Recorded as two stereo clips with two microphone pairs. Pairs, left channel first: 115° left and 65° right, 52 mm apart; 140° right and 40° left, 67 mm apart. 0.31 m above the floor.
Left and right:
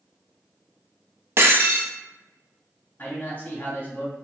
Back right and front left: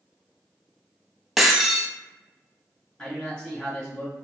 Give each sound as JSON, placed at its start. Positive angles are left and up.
{"t": 1.4, "sound": "breaking glass", "azimuth_deg": -45, "distance_m": 0.6}
{"t": 3.0, "sound": "a man speaking", "azimuth_deg": 155, "distance_m": 1.7}